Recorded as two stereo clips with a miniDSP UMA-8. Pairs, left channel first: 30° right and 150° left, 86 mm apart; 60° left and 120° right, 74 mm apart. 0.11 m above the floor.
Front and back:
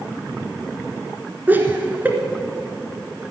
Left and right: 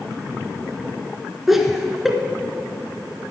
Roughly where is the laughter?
Behind.